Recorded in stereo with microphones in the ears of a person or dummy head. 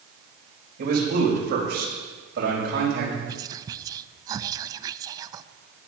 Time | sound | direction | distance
0.8 | a man speaking | 60° right (ahead or behind) | 4.5 m
3.3 | whispering | 20° right (ahead or behind) | 0.6 m